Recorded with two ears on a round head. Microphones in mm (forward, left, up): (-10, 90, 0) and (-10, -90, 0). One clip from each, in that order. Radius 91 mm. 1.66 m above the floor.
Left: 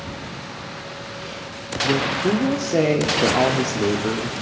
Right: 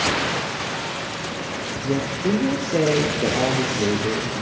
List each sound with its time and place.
1.8 s a woman speaking: 45° left (ahead or behind), 0.9 m